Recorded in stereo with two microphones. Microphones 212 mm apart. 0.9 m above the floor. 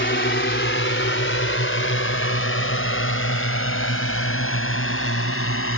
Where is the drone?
60° left (ahead or behind); by 5.8 s 85° left.